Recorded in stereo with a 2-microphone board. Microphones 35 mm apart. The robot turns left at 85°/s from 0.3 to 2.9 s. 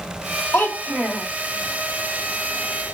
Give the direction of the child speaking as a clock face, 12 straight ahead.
10 o'clock.